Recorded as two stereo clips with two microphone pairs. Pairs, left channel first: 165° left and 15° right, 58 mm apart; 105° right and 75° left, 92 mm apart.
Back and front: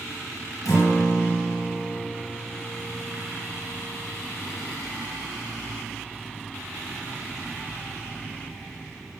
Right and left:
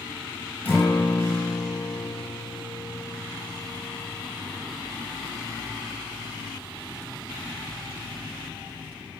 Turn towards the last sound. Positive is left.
turn(degrees=-175)